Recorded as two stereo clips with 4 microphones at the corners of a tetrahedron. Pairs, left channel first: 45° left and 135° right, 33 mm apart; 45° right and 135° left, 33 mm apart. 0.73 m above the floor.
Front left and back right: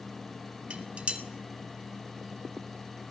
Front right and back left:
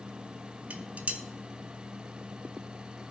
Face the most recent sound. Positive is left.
turn(degrees=170)